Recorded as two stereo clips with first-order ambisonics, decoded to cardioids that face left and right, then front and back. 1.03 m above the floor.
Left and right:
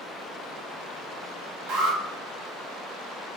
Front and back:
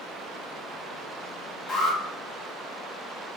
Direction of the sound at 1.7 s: 65° right.